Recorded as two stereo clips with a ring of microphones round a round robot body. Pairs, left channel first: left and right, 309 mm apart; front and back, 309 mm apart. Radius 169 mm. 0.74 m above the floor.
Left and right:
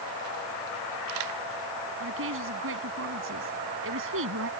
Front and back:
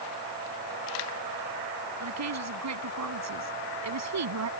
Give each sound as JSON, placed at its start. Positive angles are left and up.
{"t": 2.0, "sound": "a woman speaking", "azimuth_deg": -145}